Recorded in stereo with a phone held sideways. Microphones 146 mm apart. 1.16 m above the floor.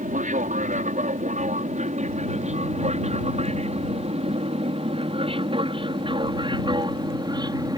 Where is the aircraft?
60° right (ahead or behind); by 7.8 s 25° right (ahead or behind).